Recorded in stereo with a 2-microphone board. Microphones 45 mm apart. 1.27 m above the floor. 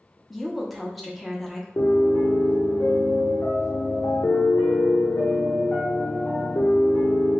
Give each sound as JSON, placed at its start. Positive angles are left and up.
{"t": 0.3, "sound": "a woman speaking", "side_deg": 5, "distance_m": 0.8}
{"t": 1.8, "sound": "a piano", "side_deg": 60, "distance_m": 0.8}